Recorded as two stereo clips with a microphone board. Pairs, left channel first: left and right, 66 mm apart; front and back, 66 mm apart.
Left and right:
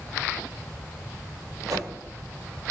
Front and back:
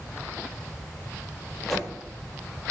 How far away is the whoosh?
About 0.9 m.